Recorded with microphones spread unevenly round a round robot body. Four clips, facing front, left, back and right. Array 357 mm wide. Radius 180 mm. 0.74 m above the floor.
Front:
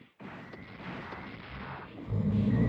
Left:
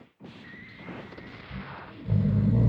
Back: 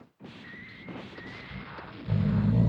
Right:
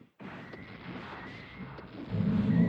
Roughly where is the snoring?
Behind left.